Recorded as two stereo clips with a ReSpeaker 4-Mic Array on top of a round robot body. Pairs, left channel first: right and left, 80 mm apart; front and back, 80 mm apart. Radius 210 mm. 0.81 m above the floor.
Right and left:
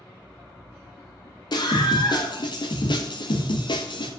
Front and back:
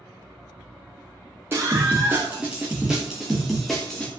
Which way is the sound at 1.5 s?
115° right.